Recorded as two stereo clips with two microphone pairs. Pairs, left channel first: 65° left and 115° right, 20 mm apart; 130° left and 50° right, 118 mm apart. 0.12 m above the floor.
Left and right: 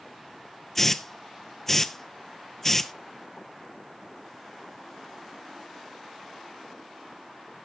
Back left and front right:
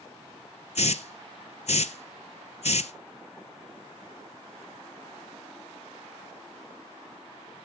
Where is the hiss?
135° left, 0.6 m.